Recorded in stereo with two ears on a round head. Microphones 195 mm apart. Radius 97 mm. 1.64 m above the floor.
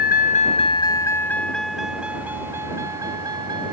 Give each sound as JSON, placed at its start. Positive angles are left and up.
{"t": 0.0, "sound": "a vehicle", "side_deg": 45}